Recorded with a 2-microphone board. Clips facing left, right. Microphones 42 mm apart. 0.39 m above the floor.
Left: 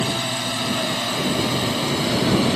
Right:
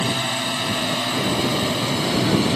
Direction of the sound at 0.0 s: 15° right (ahead or behind).